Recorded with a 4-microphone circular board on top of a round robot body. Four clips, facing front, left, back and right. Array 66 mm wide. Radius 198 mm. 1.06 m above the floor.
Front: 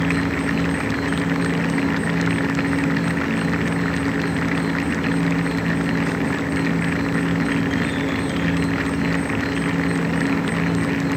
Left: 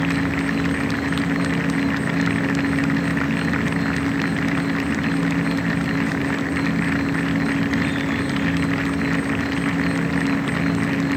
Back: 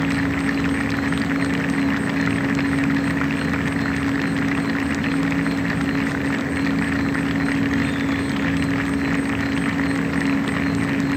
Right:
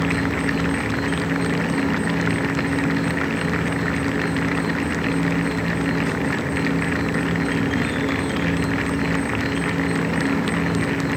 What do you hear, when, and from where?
0.0 s an insect: 50° right, 4 m